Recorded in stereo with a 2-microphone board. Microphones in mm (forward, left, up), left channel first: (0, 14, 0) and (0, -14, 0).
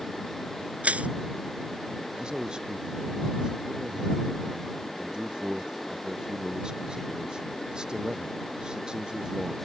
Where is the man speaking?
30° right (ahead or behind).